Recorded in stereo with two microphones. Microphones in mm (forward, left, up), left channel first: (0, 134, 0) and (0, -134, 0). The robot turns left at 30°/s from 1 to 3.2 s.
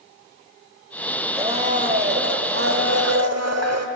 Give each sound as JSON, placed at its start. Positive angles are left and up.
{"t": 1.4, "sound": "a blender", "azimuth_deg": -20, "distance_m": 1.0}